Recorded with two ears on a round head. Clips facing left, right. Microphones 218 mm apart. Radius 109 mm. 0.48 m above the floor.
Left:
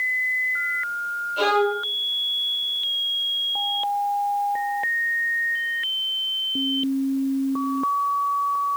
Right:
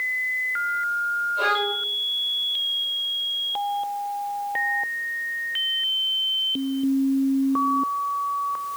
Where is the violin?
75° left (ahead or behind), 5 m.